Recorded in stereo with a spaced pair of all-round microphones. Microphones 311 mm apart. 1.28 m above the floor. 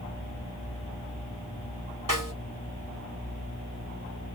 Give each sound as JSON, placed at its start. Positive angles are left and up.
{"t": 2.1, "sound": "a snare drum", "side_deg": -80, "distance_m": 2.0}